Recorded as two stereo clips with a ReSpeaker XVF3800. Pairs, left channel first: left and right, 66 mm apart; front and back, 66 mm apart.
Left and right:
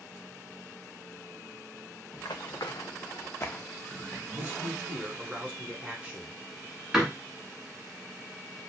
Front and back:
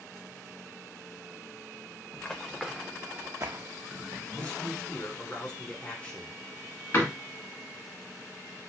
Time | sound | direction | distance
2.1 | running footsteps | 70° left | 0.8 m
4.3 | a man speaking | 50° right | 1.1 m
6.9 | a door slam | 10° right | 1.1 m